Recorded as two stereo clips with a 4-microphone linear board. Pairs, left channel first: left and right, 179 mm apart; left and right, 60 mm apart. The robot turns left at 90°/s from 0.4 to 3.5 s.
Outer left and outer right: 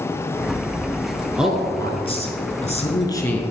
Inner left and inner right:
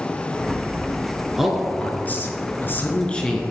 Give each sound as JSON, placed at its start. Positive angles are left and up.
{"t": 1.4, "sound": "a man speaking", "azimuth_deg": -170, "distance_m": 1.4}